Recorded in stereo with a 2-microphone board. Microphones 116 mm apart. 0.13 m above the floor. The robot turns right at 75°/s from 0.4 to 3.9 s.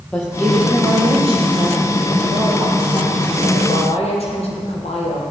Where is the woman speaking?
170° left, 4 m; by 5.2 s 70° left, 4 m.